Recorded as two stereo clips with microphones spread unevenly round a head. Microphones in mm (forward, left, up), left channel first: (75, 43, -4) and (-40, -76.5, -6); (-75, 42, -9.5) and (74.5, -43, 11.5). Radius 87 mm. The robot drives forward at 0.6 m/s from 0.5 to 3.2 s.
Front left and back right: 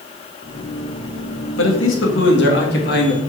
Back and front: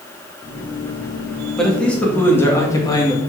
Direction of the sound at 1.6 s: 65° left.